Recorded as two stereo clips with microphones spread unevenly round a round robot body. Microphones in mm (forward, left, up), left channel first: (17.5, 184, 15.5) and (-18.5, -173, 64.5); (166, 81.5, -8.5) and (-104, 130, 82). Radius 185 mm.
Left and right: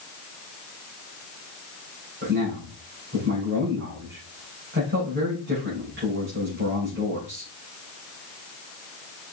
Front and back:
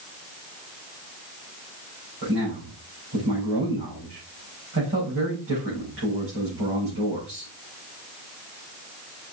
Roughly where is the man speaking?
Behind.